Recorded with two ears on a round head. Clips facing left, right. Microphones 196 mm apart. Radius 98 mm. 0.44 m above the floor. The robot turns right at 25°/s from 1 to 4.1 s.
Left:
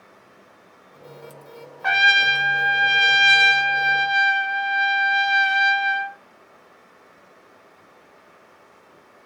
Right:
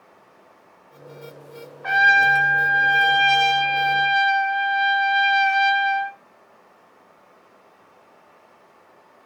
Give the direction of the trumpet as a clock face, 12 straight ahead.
8 o'clock.